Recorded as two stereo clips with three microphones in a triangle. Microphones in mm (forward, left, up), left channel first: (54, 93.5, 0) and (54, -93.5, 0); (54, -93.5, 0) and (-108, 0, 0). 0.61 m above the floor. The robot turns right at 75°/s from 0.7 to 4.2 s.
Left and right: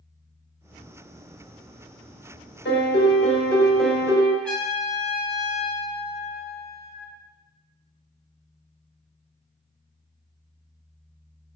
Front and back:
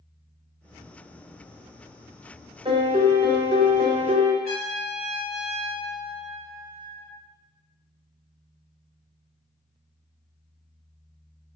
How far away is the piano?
About 0.6 m.